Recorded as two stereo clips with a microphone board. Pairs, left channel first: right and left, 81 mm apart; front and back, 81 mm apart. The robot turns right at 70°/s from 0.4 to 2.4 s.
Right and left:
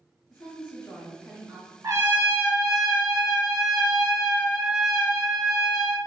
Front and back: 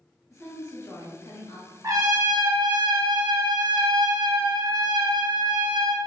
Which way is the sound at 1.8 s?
130° left.